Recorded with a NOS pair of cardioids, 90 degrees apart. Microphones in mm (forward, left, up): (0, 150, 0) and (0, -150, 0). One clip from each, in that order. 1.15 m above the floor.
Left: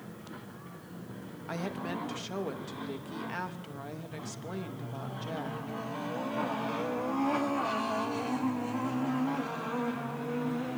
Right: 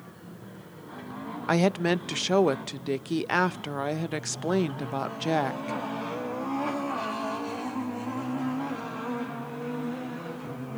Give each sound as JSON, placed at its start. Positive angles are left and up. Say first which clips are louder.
{"t": 1.5, "sound": "a woman speaking", "louder": "right 12 dB", "azimuth_deg": -70, "distance_m": 0.9}